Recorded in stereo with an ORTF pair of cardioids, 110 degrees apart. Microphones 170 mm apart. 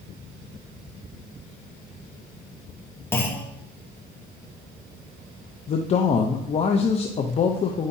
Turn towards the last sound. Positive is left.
turn(degrees=40)